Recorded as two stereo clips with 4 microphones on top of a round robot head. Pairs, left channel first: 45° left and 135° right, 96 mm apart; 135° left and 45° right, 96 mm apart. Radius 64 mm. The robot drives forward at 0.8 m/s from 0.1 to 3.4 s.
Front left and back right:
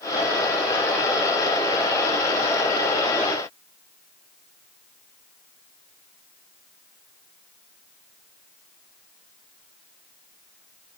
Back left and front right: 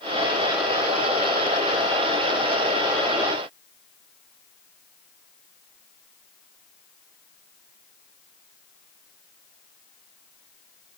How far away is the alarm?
I don't hear an alarm.